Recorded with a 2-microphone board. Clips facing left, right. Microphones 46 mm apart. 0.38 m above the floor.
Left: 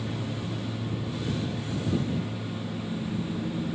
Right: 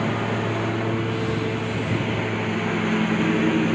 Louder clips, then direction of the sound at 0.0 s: Right 10 dB; 75° right (ahead or behind).